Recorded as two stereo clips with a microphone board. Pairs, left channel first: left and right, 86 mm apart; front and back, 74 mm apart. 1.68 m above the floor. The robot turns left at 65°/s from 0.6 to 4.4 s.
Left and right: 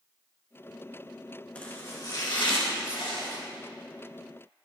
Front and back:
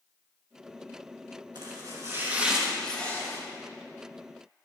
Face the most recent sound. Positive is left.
turn(degrees=-20)